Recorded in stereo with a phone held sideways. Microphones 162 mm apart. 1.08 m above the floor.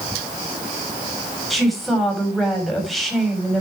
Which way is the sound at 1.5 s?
Centre (ahead or behind).